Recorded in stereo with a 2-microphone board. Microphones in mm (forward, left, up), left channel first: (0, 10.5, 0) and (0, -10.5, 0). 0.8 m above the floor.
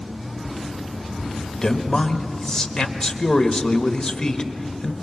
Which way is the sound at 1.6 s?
35° left (ahead or behind).